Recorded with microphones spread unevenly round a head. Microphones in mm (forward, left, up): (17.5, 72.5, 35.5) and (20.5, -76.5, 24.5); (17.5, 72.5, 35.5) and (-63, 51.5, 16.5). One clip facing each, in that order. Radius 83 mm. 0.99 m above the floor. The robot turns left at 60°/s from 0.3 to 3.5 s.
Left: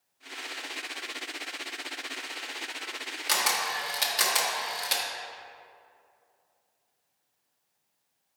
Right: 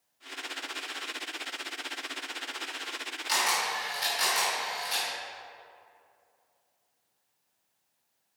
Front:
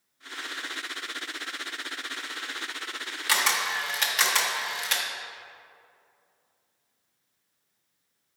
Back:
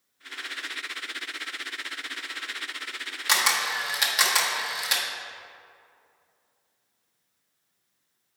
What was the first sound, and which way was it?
A camera shutter, 130° left.